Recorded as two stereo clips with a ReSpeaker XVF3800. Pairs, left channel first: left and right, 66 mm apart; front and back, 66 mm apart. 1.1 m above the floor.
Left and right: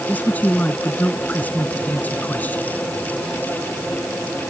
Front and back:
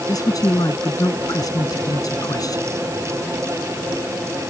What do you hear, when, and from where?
0.1 s a man speaking: 25° left